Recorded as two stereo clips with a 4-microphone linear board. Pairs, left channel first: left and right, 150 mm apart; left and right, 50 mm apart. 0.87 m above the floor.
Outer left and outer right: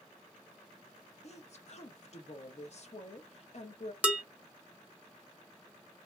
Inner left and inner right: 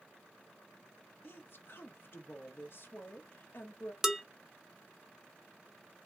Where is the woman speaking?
50° left (ahead or behind), 0.8 m.